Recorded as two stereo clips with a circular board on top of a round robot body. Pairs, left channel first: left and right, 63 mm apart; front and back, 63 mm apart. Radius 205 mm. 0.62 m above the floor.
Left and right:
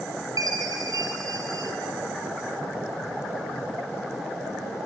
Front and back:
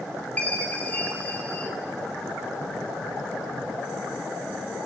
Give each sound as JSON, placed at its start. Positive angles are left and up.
{"t": 0.4, "sound": "a chime", "azimuth_deg": -70, "distance_m": 2.5}